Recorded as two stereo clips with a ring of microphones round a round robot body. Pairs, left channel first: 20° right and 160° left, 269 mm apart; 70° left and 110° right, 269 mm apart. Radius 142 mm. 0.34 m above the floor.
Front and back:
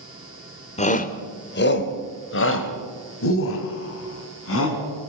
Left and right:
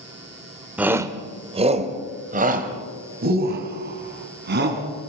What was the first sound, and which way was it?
A shout, 35° right.